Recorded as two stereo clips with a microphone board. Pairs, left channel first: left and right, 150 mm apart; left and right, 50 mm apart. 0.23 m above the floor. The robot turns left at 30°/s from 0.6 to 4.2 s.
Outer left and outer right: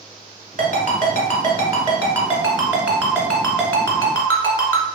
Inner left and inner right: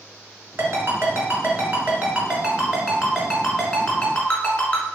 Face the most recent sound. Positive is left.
turn(degrees=25)  # may be behind; listen again after turning